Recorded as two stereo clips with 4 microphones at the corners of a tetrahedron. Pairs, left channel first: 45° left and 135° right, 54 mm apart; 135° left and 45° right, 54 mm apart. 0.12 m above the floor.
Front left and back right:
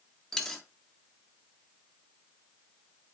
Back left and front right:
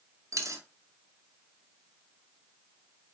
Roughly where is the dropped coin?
Ahead right.